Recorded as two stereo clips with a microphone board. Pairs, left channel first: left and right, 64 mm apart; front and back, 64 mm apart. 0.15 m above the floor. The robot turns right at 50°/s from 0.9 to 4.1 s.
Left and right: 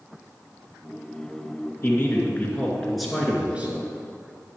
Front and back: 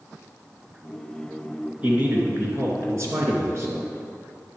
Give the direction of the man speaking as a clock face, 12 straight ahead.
8 o'clock.